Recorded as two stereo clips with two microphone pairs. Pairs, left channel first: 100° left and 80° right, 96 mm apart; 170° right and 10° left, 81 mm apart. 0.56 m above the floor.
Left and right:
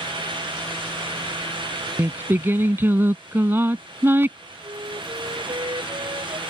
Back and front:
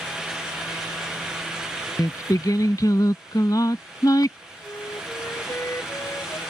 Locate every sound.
2.0 s singing: 145° right
4.6 s a flute: 115° right